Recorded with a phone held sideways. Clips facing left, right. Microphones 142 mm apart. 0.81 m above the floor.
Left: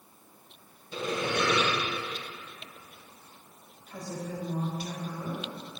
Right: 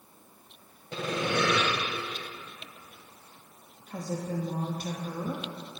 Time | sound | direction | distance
0.9 | sawing | 90° right | 3 m
3.9 | a woman speaking | 45° right (ahead or behind) | 1.0 m